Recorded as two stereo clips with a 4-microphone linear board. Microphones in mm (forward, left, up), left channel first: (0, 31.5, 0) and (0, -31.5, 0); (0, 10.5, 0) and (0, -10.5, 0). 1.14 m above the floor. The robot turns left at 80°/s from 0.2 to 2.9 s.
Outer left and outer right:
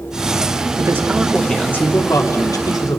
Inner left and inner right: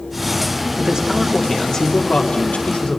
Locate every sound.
0.8 s a man speaking: 130° right, 2.5 m; by 3.0 s 60° left, 2.5 m